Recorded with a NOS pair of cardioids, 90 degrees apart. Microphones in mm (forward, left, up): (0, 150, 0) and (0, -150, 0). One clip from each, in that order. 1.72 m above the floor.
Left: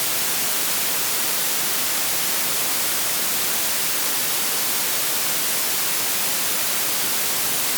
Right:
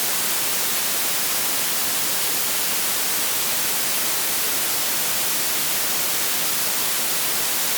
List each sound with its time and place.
Only background noise.